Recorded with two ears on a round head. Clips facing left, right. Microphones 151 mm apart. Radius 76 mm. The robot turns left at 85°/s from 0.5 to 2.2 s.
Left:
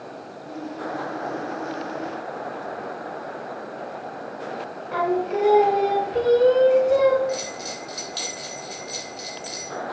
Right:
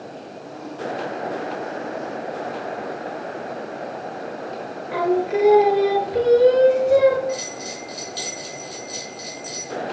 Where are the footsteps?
I don't hear footsteps.